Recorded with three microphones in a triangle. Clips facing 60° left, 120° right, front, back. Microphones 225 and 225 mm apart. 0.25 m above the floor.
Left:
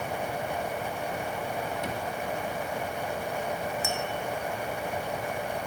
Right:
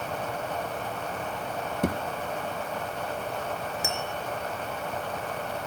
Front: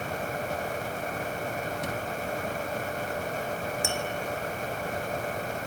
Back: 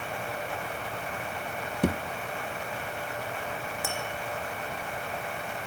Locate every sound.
1.8 s a thud: 155° right, 2 m
3.8 s tapping: 60° right, 3.5 m